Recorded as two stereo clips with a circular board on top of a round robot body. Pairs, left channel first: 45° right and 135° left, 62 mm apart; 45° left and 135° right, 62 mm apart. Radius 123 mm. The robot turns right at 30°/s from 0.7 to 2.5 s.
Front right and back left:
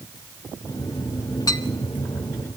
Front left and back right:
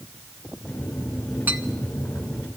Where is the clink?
75° right, 1.5 m; by 1.6 s 70° right, 1.5 m.